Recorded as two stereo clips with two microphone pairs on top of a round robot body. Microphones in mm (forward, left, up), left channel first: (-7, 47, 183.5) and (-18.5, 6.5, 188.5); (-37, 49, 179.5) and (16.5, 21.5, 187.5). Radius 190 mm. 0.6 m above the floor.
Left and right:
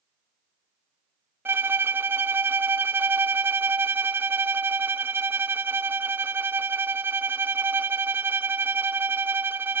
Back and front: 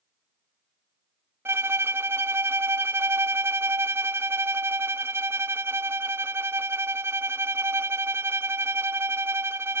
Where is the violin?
75° right, 0.7 m.